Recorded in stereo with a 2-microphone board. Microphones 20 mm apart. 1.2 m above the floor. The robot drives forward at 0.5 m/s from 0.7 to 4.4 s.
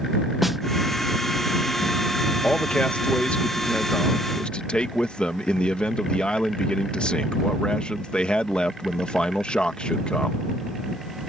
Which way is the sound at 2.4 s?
70° left (ahead or behind).